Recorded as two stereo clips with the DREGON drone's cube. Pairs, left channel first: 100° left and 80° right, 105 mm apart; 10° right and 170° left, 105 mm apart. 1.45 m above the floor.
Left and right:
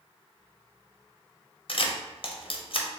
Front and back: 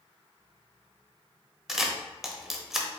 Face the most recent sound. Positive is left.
turn(degrees=85)